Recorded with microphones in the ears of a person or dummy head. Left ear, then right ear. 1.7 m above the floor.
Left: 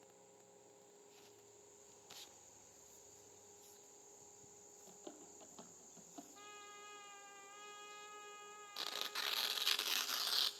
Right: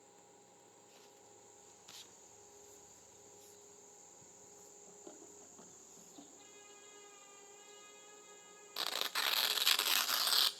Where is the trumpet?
60° left (ahead or behind), 1.7 m.